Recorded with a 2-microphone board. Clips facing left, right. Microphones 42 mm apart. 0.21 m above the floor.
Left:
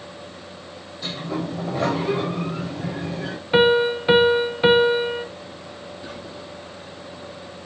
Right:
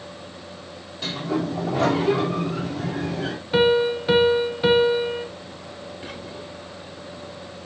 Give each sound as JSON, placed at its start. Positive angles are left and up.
{"t": 1.0, "sound": "a sliding door", "side_deg": -80, "distance_m": 3.5}
{"t": 3.5, "sound": "a piano", "side_deg": 25, "distance_m": 0.7}
{"t": 6.0, "sound": "whispering", "side_deg": -75, "distance_m": 4.5}